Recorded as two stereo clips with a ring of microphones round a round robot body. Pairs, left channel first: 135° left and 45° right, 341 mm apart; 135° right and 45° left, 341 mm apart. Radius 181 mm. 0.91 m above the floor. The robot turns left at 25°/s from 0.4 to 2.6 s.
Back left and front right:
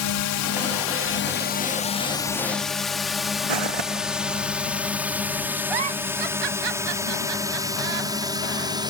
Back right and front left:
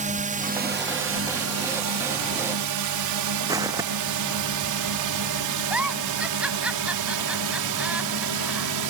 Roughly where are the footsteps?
Ahead right.